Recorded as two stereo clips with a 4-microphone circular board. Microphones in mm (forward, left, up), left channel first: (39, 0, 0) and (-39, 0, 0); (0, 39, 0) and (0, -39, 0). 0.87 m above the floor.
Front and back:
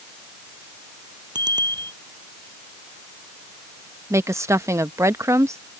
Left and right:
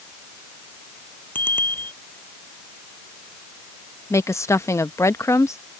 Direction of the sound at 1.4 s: 155° left.